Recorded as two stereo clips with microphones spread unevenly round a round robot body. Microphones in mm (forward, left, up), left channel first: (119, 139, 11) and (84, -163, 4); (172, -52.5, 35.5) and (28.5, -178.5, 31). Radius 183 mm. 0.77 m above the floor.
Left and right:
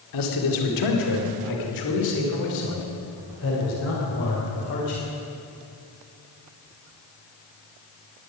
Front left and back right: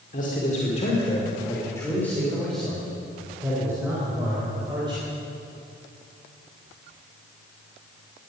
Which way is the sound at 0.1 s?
100° left.